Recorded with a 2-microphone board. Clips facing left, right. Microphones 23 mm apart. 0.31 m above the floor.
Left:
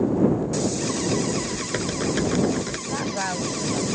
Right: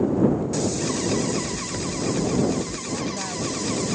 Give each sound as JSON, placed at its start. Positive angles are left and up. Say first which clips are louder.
{"t": 1.4, "sound": "typing on a keyboard", "louder": "left 2 dB", "side_deg": 55}
{"t": 2.9, "sound": "a woman speaking", "louder": "left 2 dB", "side_deg": 50}